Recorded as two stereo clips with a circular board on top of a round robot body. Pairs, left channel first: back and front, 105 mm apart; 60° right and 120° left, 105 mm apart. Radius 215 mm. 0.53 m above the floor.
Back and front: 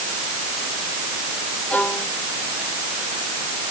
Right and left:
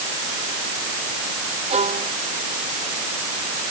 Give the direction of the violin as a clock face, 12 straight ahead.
9 o'clock.